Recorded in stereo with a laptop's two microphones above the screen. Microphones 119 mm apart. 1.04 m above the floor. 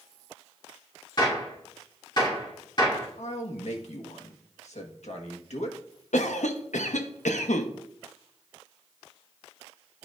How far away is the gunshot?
About 3 m.